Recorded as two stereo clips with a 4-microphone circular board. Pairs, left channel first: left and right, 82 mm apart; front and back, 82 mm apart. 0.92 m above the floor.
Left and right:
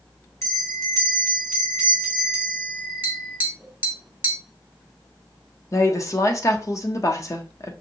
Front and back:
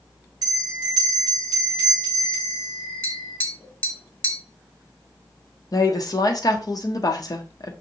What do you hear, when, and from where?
0.4 s a bell: 140° left, 1.9 m
3.0 s tapping: 40° right, 0.7 m
5.7 s a woman speaking: 40° left, 0.8 m